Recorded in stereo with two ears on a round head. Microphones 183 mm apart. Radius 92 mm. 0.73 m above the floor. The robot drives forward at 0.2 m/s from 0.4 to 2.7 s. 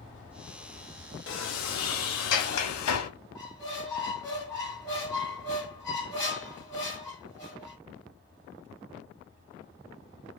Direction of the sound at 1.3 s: 65° left (ahead or behind).